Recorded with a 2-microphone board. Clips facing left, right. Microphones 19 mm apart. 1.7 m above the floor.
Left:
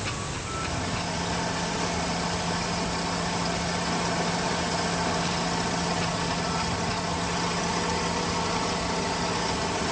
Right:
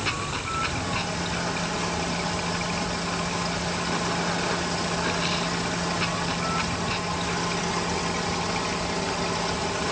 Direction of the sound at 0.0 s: 25° right (ahead or behind).